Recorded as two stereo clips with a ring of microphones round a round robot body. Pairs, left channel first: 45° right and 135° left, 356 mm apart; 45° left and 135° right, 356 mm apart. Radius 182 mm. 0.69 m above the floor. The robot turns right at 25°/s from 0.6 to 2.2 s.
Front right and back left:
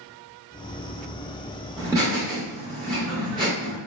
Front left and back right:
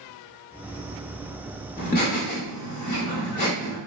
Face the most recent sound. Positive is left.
turn(degrees=75)